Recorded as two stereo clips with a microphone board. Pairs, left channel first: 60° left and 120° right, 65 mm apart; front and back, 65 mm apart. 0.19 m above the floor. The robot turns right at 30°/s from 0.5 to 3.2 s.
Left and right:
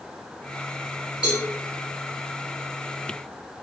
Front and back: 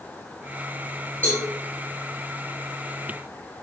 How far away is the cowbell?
About 1.6 m.